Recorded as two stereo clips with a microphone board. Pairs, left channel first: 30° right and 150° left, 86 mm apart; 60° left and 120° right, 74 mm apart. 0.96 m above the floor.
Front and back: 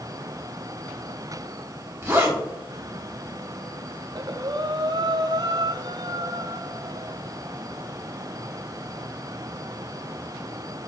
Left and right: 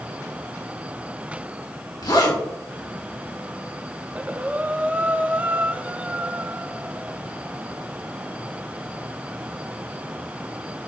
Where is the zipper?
90° left, 2.5 m.